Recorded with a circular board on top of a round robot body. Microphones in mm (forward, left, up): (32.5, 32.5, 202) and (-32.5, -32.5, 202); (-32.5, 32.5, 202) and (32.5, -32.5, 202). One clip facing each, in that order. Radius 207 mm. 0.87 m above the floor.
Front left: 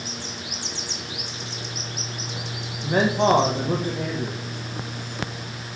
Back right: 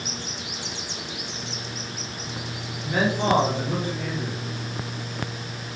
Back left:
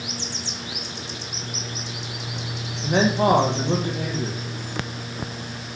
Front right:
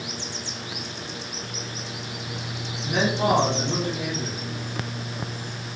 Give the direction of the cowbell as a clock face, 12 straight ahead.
No cowbell in this recording.